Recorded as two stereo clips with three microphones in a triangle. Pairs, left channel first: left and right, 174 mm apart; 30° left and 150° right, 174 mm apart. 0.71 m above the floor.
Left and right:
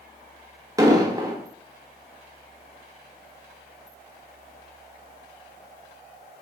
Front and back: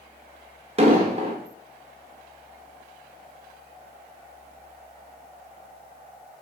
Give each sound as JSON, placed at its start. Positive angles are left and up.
{"t": 0.8, "sound": "an explosion", "azimuth_deg": -145, "distance_m": 0.7}